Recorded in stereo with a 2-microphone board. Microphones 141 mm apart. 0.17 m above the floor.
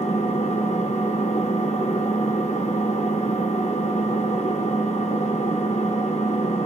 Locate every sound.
0.0 s an engine running: 60° left (ahead or behind), 0.8 m